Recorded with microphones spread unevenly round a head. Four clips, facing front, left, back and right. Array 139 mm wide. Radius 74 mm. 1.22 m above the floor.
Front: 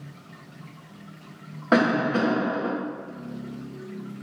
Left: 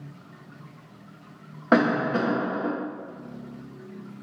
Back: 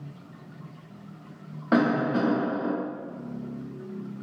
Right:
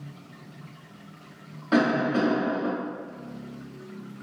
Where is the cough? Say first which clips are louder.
Left 1 dB, front 2 dB; 55° left, 0.9 m.